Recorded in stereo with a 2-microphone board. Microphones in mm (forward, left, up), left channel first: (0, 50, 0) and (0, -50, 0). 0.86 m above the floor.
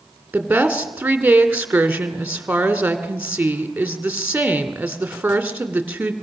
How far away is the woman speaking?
About 2 m.